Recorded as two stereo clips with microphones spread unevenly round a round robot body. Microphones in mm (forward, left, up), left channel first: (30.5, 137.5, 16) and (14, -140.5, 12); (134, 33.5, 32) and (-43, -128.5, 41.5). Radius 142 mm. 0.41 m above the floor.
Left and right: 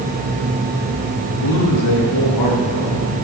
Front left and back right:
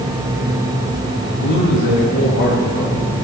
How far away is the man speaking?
About 6 m.